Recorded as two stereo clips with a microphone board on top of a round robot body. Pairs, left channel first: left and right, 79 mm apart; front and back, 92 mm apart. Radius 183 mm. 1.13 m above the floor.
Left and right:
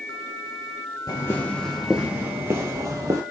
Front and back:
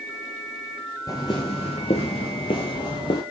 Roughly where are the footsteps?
Ahead left.